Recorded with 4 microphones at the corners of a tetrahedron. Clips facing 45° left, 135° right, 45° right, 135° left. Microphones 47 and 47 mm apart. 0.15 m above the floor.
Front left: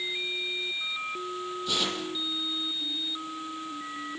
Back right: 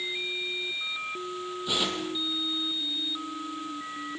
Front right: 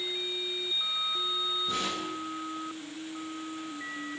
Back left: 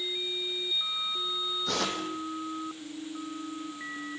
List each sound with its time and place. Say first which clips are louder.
1.7 s tearing paper: back right 2 dB, back left 1 dB; 150° left, 4 m